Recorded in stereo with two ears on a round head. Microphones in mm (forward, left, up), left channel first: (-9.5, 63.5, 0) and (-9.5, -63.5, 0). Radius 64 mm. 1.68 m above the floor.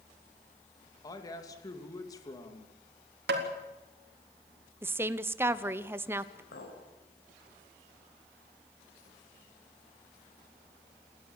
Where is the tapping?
90° right, 4 m.